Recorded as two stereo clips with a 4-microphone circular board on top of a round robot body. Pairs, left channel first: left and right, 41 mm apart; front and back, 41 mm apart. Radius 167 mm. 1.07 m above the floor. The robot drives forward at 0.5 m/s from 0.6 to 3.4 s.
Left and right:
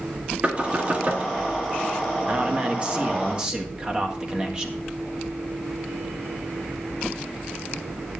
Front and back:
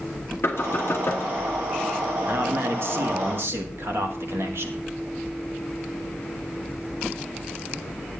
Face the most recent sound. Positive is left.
turn(degrees=-160)